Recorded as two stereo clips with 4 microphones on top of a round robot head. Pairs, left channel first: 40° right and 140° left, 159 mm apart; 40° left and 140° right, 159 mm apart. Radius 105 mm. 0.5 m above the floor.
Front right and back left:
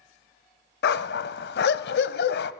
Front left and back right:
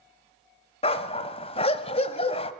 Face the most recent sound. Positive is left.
turn(degrees=-20)